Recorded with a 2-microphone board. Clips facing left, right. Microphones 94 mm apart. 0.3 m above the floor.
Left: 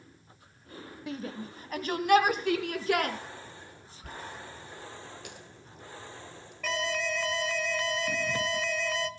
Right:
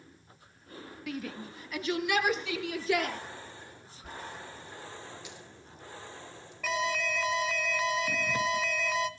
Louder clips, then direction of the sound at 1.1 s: Left 1 dB; 30° left (ahead or behind).